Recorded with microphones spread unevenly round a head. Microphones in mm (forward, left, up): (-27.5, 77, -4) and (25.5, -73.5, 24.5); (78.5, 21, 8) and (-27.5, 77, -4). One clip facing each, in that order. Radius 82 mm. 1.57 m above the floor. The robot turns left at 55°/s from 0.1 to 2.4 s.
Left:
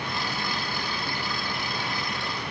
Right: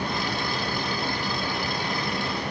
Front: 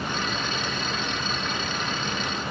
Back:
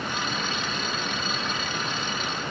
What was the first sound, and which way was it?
Only background noise.